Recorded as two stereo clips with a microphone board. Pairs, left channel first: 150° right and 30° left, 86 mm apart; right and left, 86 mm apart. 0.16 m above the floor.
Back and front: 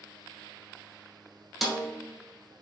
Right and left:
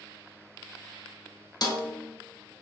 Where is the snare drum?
55° right, 0.9 m.